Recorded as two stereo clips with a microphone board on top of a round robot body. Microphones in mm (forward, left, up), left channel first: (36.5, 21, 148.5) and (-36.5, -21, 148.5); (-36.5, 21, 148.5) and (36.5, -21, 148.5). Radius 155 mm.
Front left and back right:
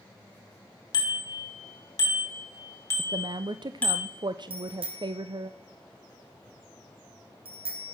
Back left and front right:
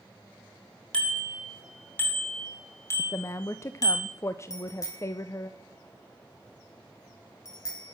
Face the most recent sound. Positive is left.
turn(degrees=-160)